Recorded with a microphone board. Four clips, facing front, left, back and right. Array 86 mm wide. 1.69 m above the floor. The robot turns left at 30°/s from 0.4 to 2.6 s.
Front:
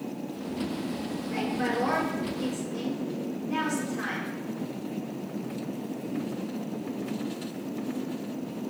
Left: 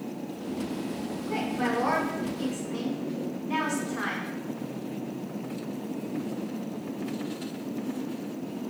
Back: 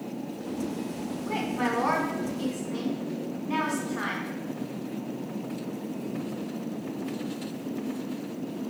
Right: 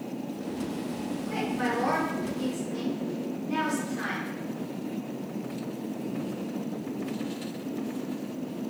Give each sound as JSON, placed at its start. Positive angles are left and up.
{"t": 1.3, "sound": "a woman speaking", "azimuth_deg": 175, "distance_m": 3.0}